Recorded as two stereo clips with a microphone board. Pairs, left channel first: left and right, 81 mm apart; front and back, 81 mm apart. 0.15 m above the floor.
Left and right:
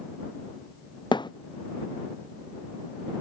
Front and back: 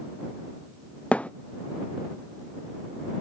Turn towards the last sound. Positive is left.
turn(degrees=70)